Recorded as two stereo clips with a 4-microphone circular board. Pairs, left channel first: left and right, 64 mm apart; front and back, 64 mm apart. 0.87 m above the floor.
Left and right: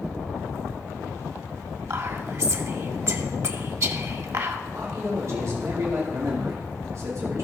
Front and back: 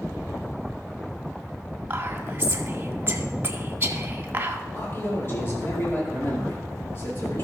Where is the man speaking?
50° right, 2 m.